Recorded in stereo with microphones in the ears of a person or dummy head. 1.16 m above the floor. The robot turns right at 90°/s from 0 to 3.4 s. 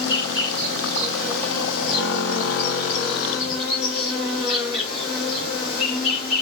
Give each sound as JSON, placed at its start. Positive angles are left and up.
{"t": 0.0, "sound": "an insect", "azimuth_deg": -120, "distance_m": 4.5}